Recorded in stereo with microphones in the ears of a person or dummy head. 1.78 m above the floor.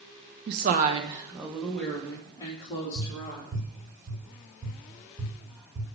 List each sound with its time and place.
0.5 s a woman speaking: 60° right (ahead or behind), 1.3 m; by 3.6 s 30° left (ahead or behind), 3.5 m
3.0 s tapping: 20° right (ahead or behind), 4 m